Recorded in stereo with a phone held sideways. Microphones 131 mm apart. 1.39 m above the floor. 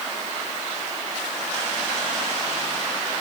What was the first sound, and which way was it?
Only background noise.